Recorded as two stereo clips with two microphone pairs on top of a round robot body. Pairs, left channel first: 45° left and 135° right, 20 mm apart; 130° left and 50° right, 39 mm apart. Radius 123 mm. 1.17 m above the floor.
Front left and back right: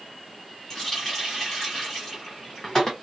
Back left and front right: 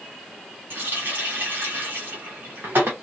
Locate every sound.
0.7 s a running tap: 20° right, 0.6 m